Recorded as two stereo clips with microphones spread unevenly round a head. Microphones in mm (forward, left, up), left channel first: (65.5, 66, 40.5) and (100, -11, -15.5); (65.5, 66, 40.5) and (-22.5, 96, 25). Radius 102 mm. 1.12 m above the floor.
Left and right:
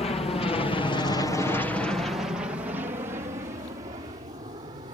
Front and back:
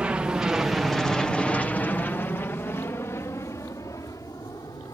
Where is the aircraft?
95° left; by 4.9 s 90° right.